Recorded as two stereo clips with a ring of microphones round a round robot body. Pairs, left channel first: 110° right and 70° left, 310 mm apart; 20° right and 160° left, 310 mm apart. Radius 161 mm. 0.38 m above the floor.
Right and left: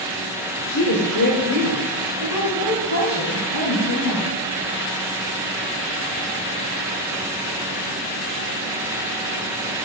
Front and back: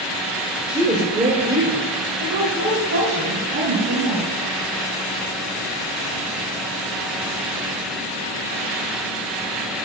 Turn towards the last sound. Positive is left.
turn(degrees=-150)